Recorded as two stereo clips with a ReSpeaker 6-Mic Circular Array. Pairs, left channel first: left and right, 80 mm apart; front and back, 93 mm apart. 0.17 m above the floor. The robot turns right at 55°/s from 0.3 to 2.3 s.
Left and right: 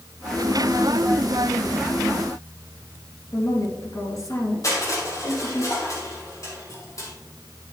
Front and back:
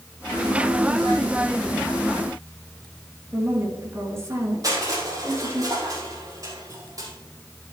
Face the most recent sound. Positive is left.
turn(degrees=130)